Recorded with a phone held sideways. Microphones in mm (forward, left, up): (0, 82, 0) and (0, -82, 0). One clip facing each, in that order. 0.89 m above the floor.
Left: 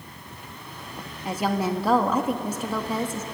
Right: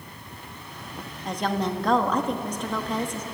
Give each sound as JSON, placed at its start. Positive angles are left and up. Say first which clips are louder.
{"t": 1.2, "sound": "a woman speaking", "louder": "left 2 dB", "side_deg": 5, "distance_m": 1.3}